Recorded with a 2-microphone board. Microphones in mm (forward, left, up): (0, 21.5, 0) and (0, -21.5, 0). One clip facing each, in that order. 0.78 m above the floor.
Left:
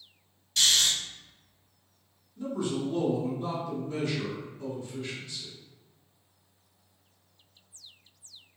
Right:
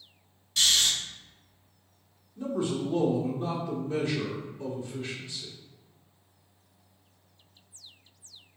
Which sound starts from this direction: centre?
Snoring, at 0.6 s.